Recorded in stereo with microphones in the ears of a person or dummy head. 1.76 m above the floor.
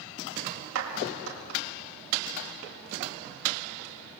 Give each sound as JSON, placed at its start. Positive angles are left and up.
{"t": 0.8, "sound": "a clap", "side_deg": -80, "distance_m": 6.5}